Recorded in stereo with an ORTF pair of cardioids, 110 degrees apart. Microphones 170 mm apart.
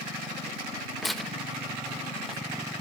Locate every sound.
1.0 s tearing paper: straight ahead, 0.8 m